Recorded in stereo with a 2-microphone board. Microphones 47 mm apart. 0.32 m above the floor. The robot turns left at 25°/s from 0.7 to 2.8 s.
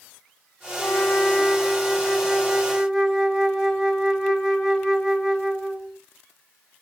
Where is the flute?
45° left, 1.0 m; by 6.0 s 10° right, 1.0 m.